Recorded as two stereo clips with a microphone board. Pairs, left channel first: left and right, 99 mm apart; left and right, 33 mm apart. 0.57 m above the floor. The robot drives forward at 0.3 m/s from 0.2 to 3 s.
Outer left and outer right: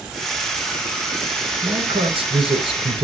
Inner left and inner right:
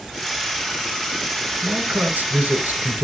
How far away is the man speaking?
About 3.5 m.